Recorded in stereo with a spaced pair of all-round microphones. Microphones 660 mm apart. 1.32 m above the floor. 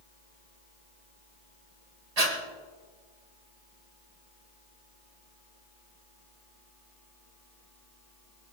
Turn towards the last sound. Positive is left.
turn(degrees=-70)  # may be behind; listen again after turning